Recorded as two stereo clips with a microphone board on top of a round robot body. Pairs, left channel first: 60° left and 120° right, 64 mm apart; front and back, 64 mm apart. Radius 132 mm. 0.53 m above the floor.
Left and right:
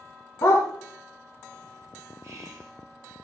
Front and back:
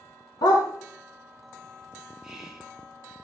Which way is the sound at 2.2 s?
95° right.